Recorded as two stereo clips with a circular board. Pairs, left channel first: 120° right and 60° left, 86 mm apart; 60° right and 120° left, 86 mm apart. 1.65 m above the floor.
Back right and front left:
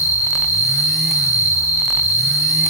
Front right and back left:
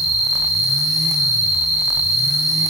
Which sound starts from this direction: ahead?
An insect, at 0.0 s.